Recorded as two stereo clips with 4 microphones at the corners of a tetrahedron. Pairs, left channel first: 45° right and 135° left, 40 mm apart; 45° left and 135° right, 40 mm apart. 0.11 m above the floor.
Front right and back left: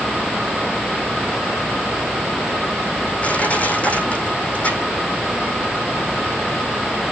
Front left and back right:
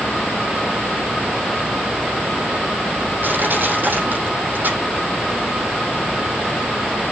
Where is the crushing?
100° right, 6 m.